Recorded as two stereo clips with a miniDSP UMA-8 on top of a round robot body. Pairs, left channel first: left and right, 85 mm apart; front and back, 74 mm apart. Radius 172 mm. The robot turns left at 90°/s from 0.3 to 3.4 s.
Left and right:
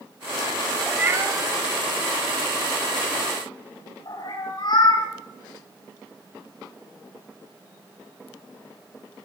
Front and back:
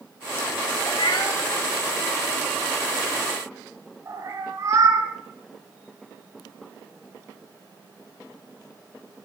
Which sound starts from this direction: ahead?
A cat meowing, at 0.9 s.